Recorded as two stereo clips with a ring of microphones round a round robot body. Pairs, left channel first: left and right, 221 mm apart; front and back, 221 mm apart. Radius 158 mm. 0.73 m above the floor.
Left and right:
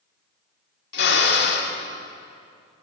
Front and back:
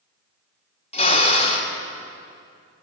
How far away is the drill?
About 2 m.